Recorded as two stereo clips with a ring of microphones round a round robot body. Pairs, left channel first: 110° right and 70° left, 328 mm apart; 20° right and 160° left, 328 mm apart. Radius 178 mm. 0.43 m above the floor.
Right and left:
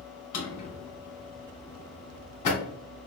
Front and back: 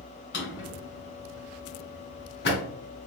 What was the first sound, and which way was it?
A drawer, 80° right.